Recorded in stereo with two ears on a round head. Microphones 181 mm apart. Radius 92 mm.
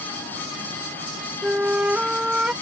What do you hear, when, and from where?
1.4 s a flute: 5° right (ahead or behind)